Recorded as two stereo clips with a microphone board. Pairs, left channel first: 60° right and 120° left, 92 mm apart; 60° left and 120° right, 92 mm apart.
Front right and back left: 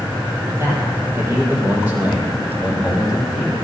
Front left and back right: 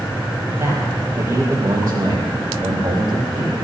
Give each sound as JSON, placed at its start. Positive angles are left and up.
{"t": 0.5, "sound": "a man speaking", "azimuth_deg": 175, "distance_m": 3.5}